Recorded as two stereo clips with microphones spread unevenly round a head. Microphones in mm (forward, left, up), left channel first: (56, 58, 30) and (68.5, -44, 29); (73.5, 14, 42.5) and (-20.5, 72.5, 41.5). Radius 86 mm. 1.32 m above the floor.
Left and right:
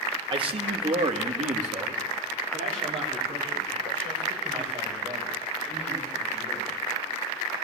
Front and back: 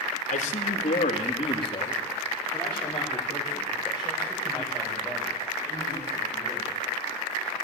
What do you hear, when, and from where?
0.3 s a man speaking: 45° right, 2 m; by 6.8 s 135° right, 8.5 m